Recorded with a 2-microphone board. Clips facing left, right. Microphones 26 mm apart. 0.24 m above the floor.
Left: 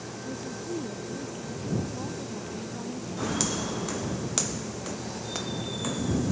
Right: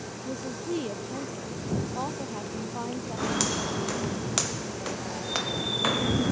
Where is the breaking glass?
I don't hear breaking glass.